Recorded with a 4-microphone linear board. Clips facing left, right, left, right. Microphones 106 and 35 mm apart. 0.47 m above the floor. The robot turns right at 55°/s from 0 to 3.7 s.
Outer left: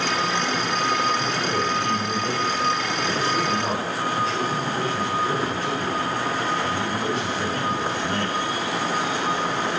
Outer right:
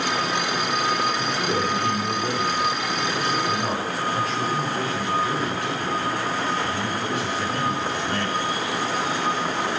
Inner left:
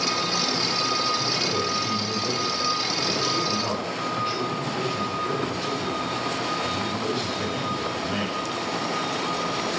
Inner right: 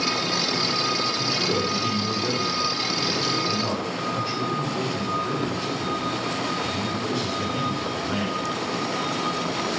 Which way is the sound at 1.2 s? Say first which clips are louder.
Even, inner right 1 dB; 105° right.